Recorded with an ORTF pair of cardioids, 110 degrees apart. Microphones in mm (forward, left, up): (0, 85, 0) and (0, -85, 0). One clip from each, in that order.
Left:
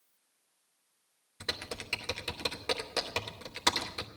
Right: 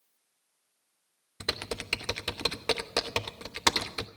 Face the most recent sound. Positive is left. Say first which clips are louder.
# right 4 dB
turn(degrees=-30)